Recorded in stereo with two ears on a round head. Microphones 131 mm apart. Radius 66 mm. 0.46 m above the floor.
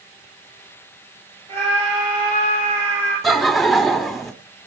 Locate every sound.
1.5 s a scream: 40° right (ahead or behind), 9.5 m
3.2 s laughter: centre (ahead or behind), 1.3 m